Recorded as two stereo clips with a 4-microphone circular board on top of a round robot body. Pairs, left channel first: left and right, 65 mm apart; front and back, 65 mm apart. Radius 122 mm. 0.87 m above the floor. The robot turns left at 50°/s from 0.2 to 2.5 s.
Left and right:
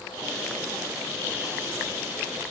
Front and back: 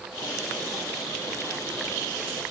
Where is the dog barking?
I don't hear a dog barking.